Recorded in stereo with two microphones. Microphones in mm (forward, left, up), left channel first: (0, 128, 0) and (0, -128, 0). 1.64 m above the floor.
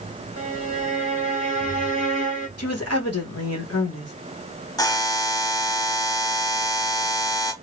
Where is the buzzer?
15° left (ahead or behind), 0.9 m.